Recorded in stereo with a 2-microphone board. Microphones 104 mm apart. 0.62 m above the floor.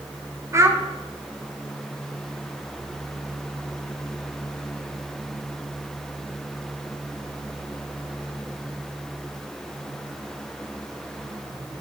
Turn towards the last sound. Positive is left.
turn(degrees=-25)  # may be behind; listen again after turning